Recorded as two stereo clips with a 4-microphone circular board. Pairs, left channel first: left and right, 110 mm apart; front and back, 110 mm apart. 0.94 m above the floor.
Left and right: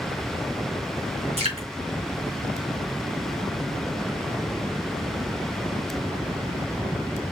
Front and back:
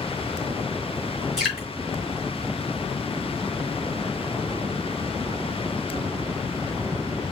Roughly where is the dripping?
Right.